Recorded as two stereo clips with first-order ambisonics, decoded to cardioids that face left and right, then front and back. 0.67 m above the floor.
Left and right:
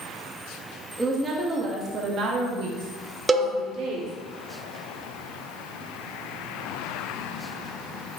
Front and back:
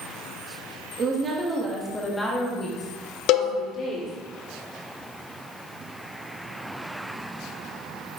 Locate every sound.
1.0 s a woman speaking: 160° right, 0.8 m; by 4.1 s 55° right, 1.7 m
3.3 s a cowbell: 15° right, 0.5 m